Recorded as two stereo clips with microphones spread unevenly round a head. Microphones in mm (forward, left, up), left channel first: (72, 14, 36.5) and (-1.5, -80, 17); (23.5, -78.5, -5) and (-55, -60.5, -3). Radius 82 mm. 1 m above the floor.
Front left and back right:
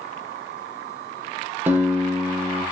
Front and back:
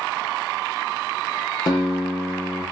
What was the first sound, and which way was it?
A guitar, 50° right.